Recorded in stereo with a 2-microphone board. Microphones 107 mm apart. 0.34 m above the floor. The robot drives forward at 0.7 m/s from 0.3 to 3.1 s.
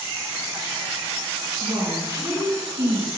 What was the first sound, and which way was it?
A woman speaking, 35° right (ahead or behind).